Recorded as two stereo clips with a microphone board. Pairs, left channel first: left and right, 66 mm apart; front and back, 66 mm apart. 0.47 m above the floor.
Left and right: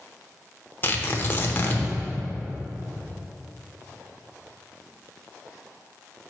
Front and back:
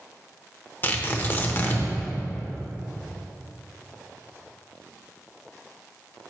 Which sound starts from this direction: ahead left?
Tearing paper, at 0.8 s.